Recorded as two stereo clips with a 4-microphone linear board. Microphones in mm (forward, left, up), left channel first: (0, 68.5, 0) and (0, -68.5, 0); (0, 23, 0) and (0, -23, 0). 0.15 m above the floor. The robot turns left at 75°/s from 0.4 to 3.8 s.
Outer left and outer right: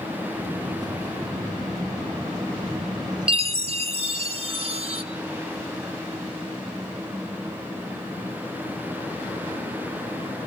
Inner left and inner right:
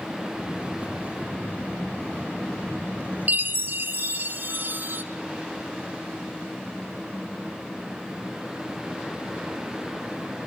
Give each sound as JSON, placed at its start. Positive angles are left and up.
{"t": 3.3, "sound": "a chime", "azimuth_deg": -60, "distance_m": 1.3}